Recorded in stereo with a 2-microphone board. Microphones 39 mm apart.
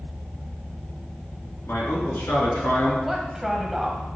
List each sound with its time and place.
1.7 s a man speaking: 60° left (ahead or behind), 3 m; by 2.9 s 65° left (ahead or behind), 4.5 m
3.0 s a woman speaking: 5° right (ahead or behind), 1.5 m